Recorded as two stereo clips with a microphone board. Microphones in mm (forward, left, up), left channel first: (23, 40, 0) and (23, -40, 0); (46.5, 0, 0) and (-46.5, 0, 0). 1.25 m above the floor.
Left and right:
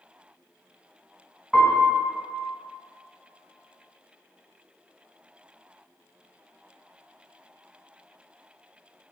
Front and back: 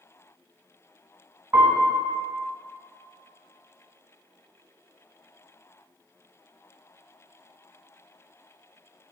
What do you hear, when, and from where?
1.5 s a piano: 175° left, 1.1 m